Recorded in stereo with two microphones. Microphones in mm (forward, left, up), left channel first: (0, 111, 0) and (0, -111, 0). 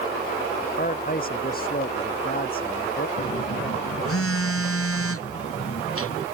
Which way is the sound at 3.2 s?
80° left.